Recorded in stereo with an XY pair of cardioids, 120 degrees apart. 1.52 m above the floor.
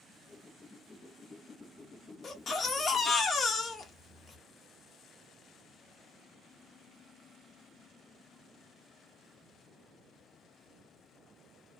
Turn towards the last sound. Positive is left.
turn(degrees=35)